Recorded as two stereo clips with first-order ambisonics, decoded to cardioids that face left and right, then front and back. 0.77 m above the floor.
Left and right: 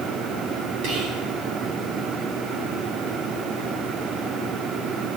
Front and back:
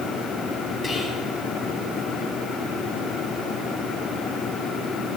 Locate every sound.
0.8 s whispering: 75° right, 2.5 m